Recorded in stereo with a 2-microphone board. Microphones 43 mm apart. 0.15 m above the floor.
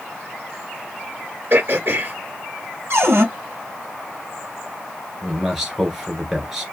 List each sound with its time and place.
1.5 s throat clearing: 50° right (ahead or behind), 2.5 m
2.9 s a cupboard door: 60° right (ahead or behind), 2.0 m
5.2 s a man speaking: 10° right (ahead or behind), 1.8 m